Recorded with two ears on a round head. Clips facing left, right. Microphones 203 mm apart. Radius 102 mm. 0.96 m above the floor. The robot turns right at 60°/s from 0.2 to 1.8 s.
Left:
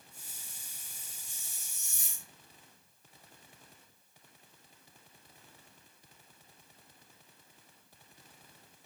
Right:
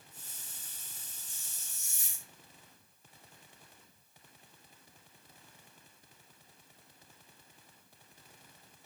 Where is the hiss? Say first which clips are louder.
Even; 55° left, 2.5 m; by 2.3 s 90° left, 2.5 m.